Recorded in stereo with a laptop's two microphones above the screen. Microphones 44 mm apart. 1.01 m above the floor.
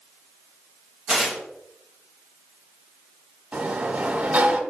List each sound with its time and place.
1.1 s tearing paper: 15° right (ahead or behind), 1.0 m
3.5 s a sliding door: 50° right (ahead or behind), 1.7 m